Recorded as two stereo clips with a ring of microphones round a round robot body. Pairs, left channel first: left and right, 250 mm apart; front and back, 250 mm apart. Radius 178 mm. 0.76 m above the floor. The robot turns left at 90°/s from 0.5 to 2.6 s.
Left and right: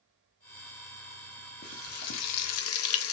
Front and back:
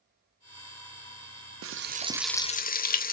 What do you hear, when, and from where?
1.6 s frying: 145° left, 0.5 m; by 3.1 s 60° left, 0.5 m